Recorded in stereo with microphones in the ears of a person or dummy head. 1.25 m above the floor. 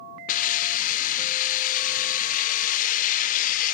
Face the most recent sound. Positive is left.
turn(degrees=50)  # may be behind; listen again after turning